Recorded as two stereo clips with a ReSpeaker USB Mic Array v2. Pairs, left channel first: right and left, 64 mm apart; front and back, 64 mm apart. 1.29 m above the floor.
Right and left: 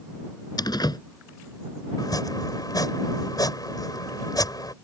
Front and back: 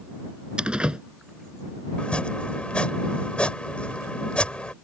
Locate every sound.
0.6 s a door slam: 105° right
2.0 s chopping: 70° right